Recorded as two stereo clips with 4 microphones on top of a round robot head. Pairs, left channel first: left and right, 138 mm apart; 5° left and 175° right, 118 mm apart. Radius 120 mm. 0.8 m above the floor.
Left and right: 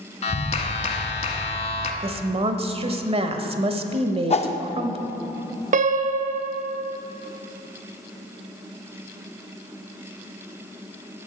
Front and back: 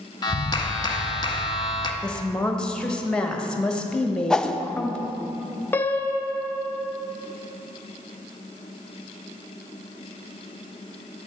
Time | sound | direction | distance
0.2 | a clap | 55° left | 1.2 m
2.0 | a woman speaking | 80° right | 1.1 m
4.3 | a whoosh | 85° left | 0.8 m
5.7 | a piano | 70° right | 0.5 m